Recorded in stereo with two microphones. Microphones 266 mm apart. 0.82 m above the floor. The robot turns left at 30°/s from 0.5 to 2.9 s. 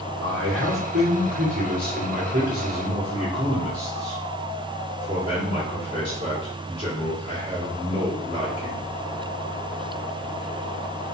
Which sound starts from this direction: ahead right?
A man speaking, at 0.2 s.